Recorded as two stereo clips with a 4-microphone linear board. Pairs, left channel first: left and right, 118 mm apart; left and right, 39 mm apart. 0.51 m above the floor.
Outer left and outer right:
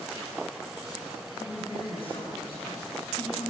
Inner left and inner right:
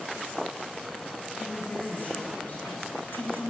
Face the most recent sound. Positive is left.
turn(degrees=55)  # may be behind; listen again after turning